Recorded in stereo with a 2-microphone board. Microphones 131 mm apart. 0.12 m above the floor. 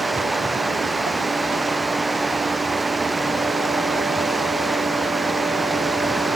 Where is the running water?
Centre (ahead or behind).